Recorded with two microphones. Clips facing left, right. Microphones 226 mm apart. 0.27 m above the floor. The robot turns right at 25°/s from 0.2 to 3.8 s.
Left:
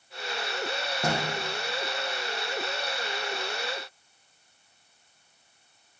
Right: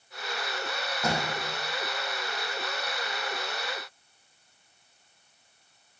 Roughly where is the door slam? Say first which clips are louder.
Left 1 dB; left.